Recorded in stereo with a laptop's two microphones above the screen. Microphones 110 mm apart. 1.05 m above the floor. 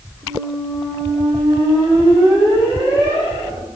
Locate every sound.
0.2 s a squeak: 45° right (ahead or behind), 1.5 m